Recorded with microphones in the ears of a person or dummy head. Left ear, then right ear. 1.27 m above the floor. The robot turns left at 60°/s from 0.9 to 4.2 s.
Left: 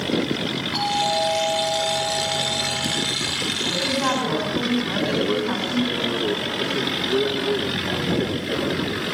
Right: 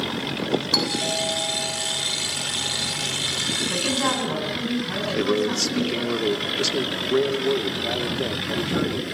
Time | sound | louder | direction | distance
0.7 | a doorbell | left 4 dB | 90° right | 8 m
3.7 | a woman speaking | left 1 dB | 155° right | 8 m
5.2 | a man speaking | even | 75° right (ahead or behind) | 2.5 m